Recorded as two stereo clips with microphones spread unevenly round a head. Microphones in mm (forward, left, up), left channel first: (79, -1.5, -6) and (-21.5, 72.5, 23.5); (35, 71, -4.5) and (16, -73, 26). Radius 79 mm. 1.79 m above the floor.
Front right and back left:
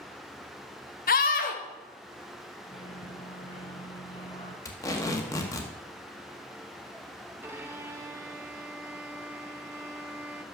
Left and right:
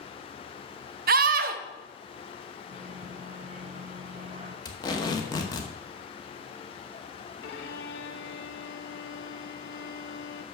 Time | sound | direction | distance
1.1 | a scream | 75° right | 0.8 m
2.6 | a microwave | 95° right | 1.0 m
4.7 | tape being pulled | 25° left | 1.1 m
7.4 | a violin | 80° left | 1.0 m